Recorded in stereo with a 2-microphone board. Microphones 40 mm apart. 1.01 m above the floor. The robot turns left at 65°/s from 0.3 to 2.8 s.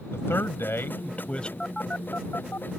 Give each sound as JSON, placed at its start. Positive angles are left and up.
{"t": 0.1, "sound": "a man speaking", "azimuth_deg": 100}
{"t": 1.6, "sound": "a phone buzzing", "side_deg": 15}